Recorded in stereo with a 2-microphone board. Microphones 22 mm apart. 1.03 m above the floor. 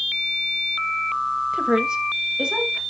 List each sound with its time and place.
1.5 s a woman speaking: 30° right (ahead or behind), 1.1 m; by 2.8 s 45° right (ahead or behind), 3 m